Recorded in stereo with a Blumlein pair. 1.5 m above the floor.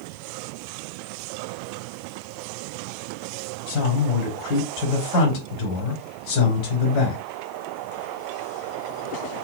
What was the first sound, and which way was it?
A man speaking, 35° left.